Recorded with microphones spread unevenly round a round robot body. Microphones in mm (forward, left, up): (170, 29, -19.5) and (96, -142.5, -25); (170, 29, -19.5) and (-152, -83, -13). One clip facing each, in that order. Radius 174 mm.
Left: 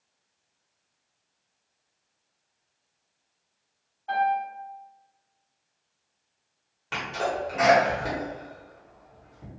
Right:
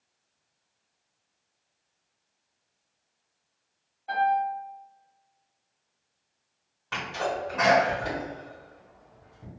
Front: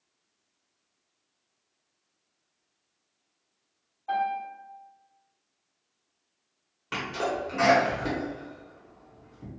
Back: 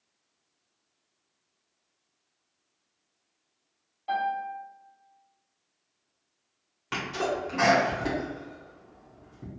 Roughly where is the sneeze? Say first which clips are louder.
Left 1 dB, back 1 dB; behind left.